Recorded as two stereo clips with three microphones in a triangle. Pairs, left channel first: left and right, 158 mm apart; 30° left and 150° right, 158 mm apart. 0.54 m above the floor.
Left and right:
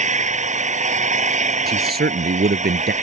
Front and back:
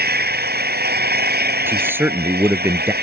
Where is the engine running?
135° right.